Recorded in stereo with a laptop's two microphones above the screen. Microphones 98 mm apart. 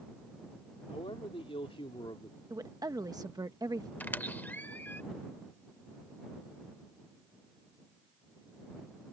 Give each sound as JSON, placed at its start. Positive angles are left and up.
{"t": 0.9, "sound": "a man speaking", "side_deg": 75}
{"t": 2.5, "sound": "a woman speaking", "side_deg": -40}
{"t": 4.0, "sound": "a squeak", "side_deg": 20}